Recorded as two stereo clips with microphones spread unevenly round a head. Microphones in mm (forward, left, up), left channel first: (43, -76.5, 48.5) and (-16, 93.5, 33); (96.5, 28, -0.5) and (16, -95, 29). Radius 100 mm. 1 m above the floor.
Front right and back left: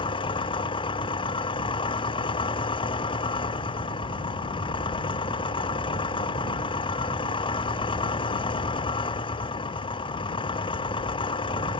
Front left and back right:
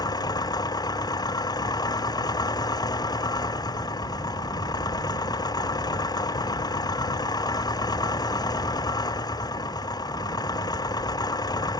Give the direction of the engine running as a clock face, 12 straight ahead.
12 o'clock.